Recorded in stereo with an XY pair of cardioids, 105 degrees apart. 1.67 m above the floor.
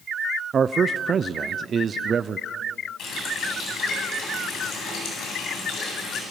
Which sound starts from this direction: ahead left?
A running tap, at 3.0 s.